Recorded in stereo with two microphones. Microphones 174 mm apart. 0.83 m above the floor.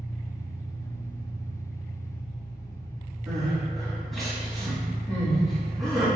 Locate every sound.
0.0 s an engine running: 55° left (ahead or behind), 1.7 m
3.3 s crying: centre (ahead or behind), 1.3 m